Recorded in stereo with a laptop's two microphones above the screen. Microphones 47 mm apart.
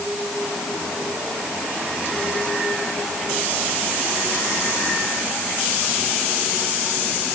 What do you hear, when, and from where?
Only background noise.